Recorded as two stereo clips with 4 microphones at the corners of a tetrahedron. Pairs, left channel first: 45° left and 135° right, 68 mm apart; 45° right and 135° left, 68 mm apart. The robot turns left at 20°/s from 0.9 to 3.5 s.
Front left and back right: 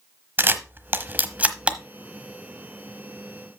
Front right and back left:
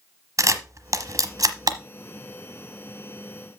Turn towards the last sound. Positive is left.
turn(degrees=115)